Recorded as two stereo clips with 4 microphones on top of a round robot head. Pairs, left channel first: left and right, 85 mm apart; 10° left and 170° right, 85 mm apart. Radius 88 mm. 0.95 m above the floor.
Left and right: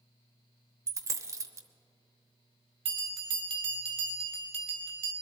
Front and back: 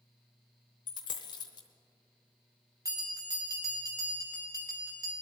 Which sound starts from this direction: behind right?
A bell, at 2.9 s.